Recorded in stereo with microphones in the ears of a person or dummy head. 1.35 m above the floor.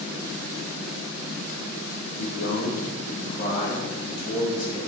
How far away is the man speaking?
About 0.8 m.